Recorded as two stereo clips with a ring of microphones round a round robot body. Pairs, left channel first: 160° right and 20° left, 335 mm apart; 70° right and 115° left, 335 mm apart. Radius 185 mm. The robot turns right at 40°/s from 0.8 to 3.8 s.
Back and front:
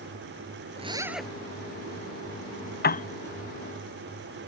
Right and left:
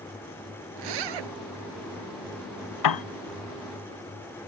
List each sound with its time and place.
0.8 s a zipper: 95° left; by 1.3 s 115° left
2.8 s a piano: 95° right; by 3.0 s 85° right